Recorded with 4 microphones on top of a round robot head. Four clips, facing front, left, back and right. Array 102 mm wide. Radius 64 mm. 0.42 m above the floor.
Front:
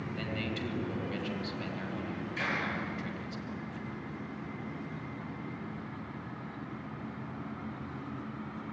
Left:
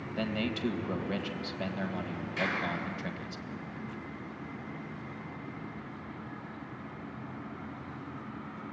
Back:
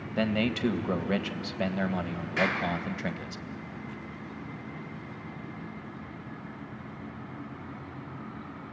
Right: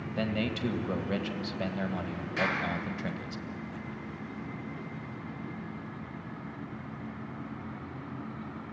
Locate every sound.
0.2 s a man speaking: 170° right, 1.9 m
2.4 s a clap: 145° right, 7 m